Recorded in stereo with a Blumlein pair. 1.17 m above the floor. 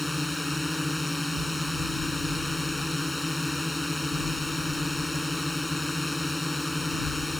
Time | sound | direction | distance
0.0 | a drone | 10° left | ?